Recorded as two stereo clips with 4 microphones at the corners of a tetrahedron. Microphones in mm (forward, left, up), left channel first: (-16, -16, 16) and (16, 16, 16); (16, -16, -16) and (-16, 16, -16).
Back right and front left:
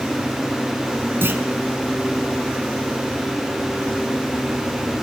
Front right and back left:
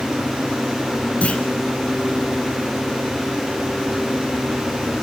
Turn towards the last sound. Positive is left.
turn(degrees=15)